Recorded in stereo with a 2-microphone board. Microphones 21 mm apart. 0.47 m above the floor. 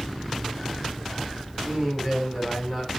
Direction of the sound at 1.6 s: 15° right (ahead or behind).